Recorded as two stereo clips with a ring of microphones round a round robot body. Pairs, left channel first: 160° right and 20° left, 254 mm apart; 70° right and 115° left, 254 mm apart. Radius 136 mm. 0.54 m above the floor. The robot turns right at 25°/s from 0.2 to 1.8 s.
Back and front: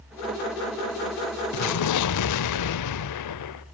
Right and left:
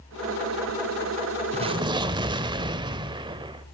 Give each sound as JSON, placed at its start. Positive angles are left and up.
{"t": 1.5, "sound": "an explosion", "azimuth_deg": 180, "distance_m": 0.6}